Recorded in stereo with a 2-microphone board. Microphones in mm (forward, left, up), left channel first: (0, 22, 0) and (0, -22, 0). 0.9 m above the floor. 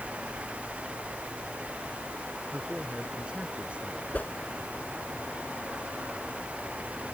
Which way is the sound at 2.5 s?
15° right (ahead or behind).